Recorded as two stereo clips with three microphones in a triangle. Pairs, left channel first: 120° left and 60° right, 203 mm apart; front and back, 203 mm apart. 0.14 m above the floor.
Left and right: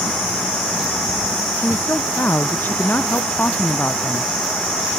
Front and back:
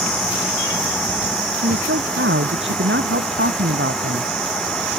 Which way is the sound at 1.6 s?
160° right.